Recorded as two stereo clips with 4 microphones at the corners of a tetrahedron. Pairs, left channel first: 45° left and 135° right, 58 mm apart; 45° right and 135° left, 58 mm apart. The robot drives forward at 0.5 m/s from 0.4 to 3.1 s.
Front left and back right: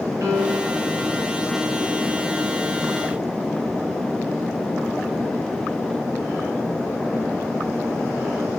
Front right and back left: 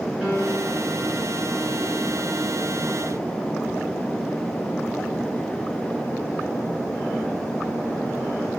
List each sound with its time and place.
0.2 s a piano: 150° right, 3.5 m; by 0.8 s 155° right, 3.5 m